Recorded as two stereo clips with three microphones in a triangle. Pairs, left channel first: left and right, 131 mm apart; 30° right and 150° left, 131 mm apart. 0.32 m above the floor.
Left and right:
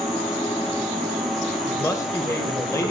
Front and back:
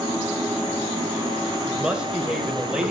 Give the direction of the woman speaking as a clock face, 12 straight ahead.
9 o'clock.